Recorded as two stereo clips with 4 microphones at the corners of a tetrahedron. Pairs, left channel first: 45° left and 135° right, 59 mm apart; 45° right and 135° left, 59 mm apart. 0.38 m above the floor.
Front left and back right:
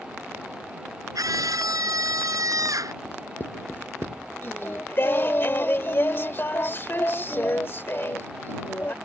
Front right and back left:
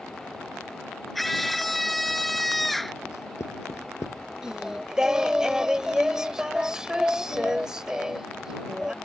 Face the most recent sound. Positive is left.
turn(degrees=60)